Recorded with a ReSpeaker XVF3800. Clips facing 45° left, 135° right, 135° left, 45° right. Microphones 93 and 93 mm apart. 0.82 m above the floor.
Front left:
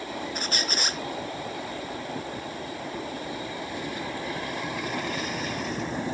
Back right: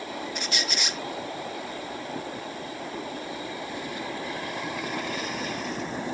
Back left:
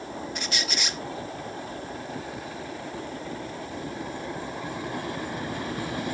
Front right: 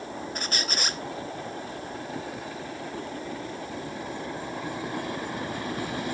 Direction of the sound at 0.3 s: Straight ahead.